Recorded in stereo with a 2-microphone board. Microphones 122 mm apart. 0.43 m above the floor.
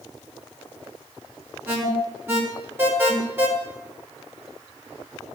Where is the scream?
I don't hear a scream.